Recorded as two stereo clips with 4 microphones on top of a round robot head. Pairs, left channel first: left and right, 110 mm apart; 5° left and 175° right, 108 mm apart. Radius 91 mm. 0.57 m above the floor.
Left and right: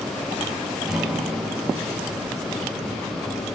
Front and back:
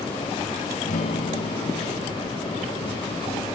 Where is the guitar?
5° right, 3 m.